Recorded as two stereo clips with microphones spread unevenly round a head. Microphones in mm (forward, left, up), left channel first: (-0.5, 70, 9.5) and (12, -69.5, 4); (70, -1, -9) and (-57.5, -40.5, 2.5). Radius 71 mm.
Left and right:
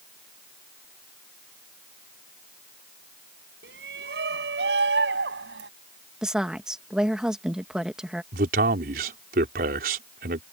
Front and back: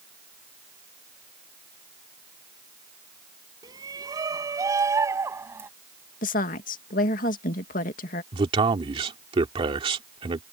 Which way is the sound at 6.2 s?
Straight ahead.